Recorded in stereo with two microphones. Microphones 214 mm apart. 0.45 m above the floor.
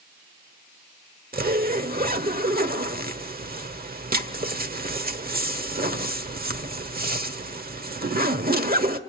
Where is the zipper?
45° right (ahead or behind), 1.2 m.